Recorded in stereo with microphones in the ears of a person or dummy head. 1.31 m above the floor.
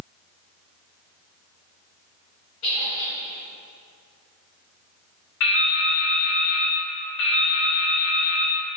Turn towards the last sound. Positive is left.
turn(degrees=75)  # may be behind; listen again after turning